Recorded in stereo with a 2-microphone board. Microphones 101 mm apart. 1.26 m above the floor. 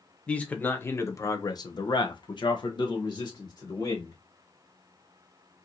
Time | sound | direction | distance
0.3 | a man speaking | 15° left (ahead or behind) | 1.0 m